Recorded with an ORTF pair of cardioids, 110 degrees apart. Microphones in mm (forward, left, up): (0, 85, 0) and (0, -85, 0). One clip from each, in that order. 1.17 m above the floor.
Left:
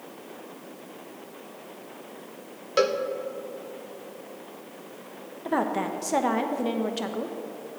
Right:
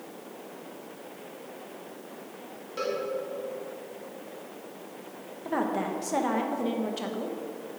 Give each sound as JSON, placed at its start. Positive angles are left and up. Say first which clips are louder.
{"t": 2.8, "sound": "a cowbell", "louder": "left 8 dB", "azimuth_deg": 65, "distance_m": 0.8}
{"t": 5.5, "sound": "a woman speaking", "louder": "left 3 dB", "azimuth_deg": 20, "distance_m": 0.9}